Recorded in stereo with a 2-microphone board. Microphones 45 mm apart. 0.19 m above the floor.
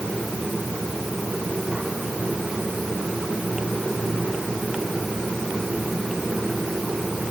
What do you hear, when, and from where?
Only background noise.